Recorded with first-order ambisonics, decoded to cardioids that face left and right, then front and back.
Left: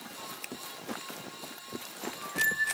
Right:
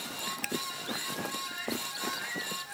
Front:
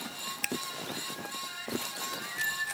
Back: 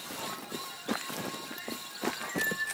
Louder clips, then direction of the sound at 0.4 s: Right 6 dB, front 10 dB; 20° right.